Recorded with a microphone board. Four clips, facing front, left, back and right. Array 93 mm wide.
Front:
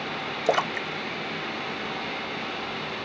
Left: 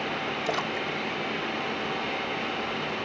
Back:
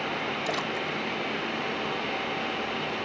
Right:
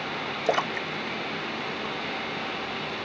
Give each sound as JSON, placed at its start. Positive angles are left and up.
{"t": 0.5, "sound": "a splash", "azimuth_deg": -30}